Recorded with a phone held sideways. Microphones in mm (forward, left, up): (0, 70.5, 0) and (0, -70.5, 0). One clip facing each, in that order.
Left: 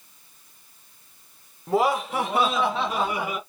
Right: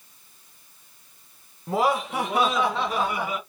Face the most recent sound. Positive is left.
turn(degrees=5)  # may be behind; listen again after turning